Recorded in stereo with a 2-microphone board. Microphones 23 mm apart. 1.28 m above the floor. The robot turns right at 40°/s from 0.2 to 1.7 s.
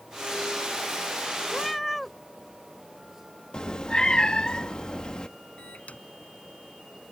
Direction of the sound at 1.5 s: 15° left (ahead or behind).